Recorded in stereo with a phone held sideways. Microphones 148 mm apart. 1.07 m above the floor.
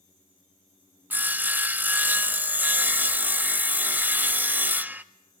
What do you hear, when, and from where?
1.1 s sawing: 10° right (ahead or behind), 0.5 m